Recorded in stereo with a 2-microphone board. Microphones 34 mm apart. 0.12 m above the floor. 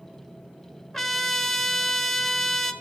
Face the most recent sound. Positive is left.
turn(degrees=5)  # may be behind; listen again after turning